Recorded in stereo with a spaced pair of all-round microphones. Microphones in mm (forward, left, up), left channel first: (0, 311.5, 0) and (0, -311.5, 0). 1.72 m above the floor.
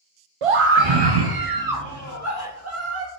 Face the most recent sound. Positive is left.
turn(degrees=-20)  # may be behind; listen again after turning